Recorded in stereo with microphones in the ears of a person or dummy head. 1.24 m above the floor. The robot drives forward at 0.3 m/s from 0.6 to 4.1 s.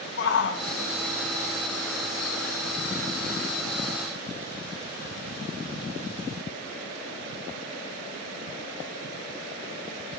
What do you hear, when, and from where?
0.2 s a shout: 60° left (ahead or behind), 1.0 m; by 3.9 s 30° left (ahead or behind), 1.7 m